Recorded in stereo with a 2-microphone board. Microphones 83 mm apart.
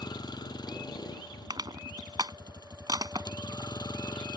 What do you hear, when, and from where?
0.0 s a vehicle: 55° left (ahead or behind)
1.5 s crushing: 55° right (ahead or behind)